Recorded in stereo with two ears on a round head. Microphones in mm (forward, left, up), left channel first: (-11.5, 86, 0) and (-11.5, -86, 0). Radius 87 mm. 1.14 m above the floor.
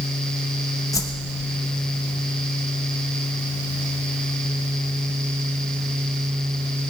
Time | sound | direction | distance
0.9 | a whoosh | 15° left (ahead or behind) | 0.8 m